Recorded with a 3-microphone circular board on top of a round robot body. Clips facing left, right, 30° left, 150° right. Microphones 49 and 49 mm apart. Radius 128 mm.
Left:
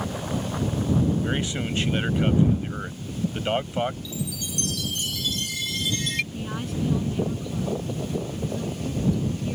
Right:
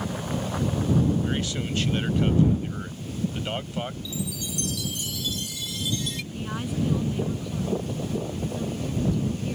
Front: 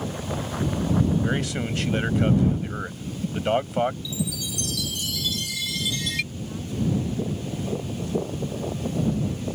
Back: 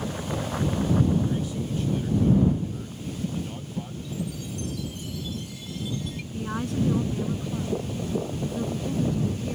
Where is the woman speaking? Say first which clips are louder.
Even, back 3 dB; 175° right.